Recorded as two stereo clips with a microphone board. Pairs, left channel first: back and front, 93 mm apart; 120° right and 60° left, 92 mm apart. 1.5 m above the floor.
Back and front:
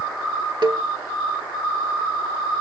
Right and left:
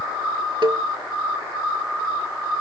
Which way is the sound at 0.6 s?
30° left.